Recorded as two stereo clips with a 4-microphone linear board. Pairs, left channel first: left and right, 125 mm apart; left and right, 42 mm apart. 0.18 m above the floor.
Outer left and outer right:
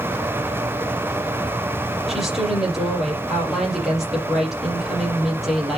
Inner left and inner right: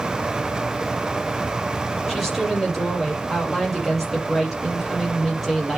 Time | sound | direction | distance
2.1 | a woman speaking | centre (ahead or behind) | 5.5 m